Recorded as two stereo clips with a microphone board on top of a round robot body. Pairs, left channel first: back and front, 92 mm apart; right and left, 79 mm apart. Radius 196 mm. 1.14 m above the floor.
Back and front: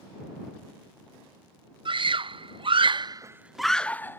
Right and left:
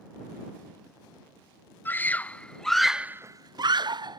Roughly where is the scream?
Ahead right.